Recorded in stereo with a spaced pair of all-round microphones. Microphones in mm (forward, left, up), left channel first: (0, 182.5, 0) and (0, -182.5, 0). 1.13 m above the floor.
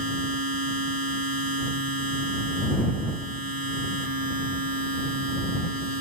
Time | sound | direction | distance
0.0 | a machine running | 70° right (ahead or behind) | ?